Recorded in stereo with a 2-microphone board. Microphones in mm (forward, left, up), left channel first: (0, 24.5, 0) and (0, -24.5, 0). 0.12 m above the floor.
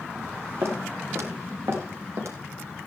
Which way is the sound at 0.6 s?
60° right (ahead or behind).